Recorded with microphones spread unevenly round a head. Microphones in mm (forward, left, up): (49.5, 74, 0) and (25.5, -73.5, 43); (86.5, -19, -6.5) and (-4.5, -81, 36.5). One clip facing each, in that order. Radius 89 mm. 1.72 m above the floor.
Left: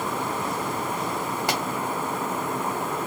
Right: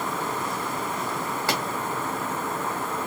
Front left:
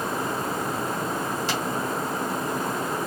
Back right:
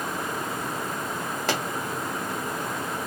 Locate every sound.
1.5 s a pop: 160° left, 0.9 m